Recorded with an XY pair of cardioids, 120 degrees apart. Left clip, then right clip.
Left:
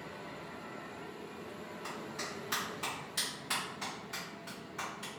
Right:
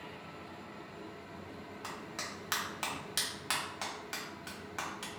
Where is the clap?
65° right, 1.4 m.